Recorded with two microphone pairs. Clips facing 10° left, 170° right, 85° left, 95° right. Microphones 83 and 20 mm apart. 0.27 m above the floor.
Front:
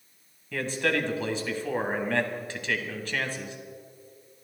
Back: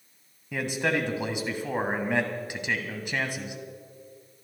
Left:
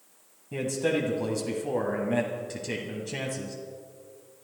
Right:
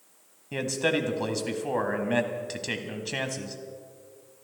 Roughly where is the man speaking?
Right.